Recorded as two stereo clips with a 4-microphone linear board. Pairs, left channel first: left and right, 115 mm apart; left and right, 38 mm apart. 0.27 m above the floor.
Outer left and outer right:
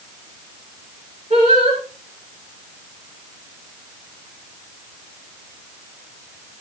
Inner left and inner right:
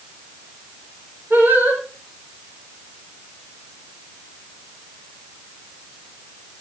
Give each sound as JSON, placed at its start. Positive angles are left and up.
{"t": 1.3, "sound": "singing", "side_deg": -65, "distance_m": 6.0}